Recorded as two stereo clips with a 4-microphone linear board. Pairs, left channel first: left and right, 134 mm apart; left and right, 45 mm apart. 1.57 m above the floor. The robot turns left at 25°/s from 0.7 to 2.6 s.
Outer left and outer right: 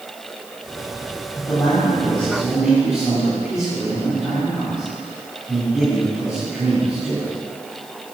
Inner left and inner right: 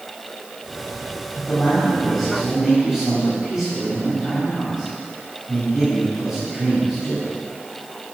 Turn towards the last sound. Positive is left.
turn(degrees=-5)